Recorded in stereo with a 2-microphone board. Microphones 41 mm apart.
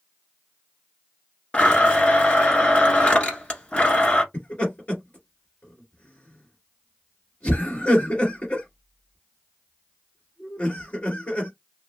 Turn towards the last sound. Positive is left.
turn(degrees=40)  # may be behind; listen again after turning